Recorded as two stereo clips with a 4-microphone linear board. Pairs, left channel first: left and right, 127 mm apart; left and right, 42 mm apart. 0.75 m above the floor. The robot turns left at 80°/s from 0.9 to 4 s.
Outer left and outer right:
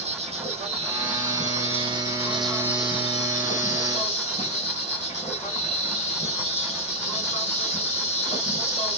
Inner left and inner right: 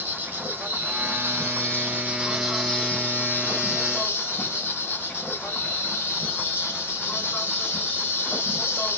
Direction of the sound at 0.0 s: 55° right.